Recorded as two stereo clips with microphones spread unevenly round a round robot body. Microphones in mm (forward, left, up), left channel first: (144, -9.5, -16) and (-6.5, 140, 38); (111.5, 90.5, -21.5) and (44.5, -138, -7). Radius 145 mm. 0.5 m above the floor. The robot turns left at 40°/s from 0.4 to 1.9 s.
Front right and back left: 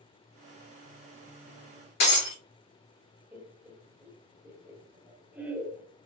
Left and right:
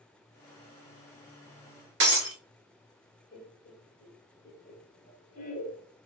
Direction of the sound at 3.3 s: 40° left.